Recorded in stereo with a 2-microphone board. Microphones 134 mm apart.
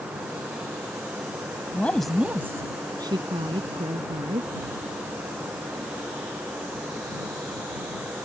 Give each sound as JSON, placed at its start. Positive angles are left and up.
{"t": 1.7, "sound": "a woman speaking", "side_deg": 15}